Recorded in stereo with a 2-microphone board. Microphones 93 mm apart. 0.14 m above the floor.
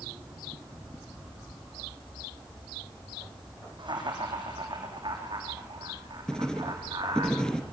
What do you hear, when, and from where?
3.8 s laughter: 55° right (ahead or behind), 6.5 m
6.3 s writing: 10° left (ahead or behind), 2 m